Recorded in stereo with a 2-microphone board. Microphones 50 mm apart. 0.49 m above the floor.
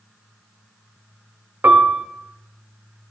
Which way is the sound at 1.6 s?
45° right (ahead or behind).